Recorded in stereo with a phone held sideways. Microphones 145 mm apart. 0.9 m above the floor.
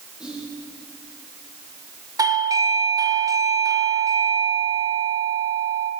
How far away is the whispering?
About 2 m.